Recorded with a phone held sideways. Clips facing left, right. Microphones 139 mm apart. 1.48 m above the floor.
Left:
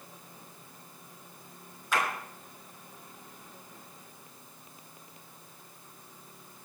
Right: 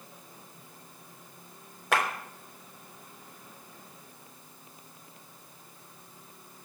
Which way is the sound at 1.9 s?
75° right (ahead or behind).